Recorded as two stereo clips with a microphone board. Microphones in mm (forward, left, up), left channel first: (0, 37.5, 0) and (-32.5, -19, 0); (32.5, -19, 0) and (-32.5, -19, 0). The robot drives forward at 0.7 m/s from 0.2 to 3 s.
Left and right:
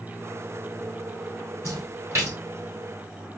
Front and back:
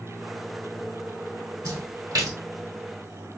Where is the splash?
170° right, 2.5 m.